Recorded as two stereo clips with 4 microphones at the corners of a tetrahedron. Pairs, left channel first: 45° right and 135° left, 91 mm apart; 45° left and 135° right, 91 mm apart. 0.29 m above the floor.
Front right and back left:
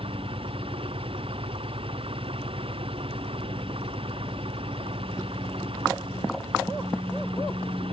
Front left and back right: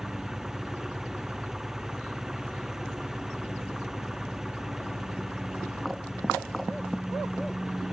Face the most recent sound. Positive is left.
turn(degrees=140)